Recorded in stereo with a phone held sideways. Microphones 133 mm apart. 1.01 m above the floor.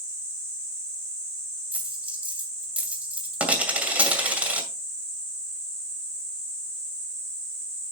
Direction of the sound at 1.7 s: 10° right (ahead or behind).